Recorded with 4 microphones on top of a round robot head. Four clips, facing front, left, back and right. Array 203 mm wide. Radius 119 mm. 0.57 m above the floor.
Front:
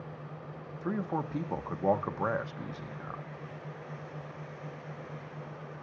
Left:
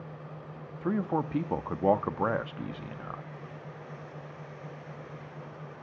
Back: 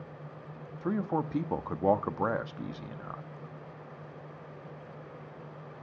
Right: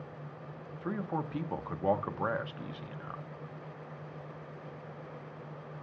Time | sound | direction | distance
0.8 | a man speaking | 115° left | 0.8 m